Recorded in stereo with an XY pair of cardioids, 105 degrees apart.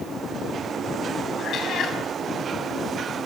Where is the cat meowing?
60° left, 4.5 m.